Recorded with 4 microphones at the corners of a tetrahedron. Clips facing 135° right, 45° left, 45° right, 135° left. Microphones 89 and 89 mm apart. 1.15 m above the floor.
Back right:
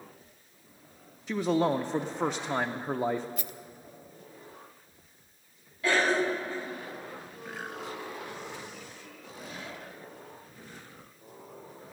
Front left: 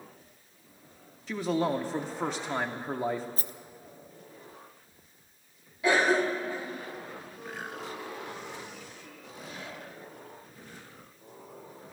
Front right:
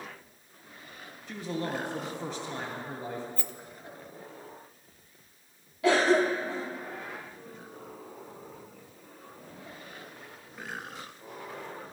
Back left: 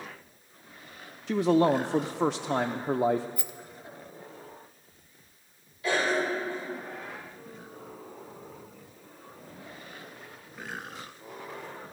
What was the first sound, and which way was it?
A man speaking, 145° left.